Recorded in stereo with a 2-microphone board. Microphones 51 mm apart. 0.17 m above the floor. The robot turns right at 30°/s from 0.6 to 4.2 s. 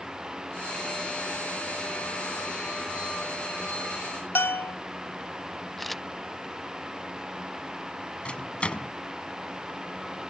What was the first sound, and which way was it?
A bell, 50° left (ahead or behind).